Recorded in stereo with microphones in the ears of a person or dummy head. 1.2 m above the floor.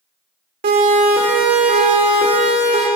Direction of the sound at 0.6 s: 40° right (ahead or behind).